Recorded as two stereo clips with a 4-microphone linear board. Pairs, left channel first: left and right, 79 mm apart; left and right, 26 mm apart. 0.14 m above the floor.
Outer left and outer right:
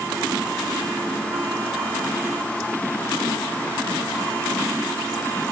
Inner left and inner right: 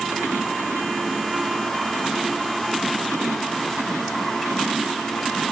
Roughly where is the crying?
No crying in this recording.